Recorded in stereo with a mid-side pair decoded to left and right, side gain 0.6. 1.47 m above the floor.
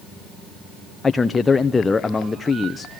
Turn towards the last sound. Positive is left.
turn(degrees=20)